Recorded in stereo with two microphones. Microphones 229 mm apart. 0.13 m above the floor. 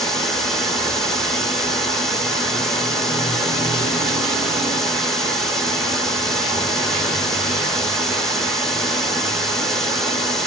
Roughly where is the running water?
Centre.